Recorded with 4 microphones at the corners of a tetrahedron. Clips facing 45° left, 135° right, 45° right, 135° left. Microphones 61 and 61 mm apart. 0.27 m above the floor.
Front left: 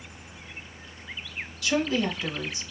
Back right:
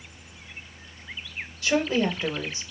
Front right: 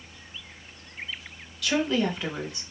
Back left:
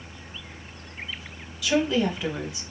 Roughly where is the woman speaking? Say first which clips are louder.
Back right 2 dB, back left 2 dB; behind right.